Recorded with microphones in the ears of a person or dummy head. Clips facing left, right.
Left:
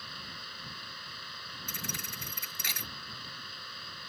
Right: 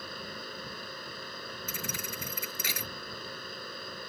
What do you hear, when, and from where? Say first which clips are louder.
0.0 s a fan: right 8 dB; 45° right (ahead or behind)
1.7 s a thud: right 1 dB; 70° right (ahead or behind)